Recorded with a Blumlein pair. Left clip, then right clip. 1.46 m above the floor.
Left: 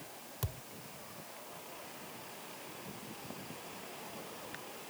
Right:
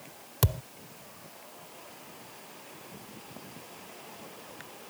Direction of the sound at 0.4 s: 35° right.